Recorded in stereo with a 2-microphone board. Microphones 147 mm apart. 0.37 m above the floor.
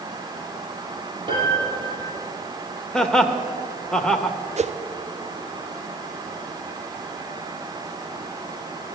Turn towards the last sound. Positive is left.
turn(degrees=-50)  # may be behind; listen again after turning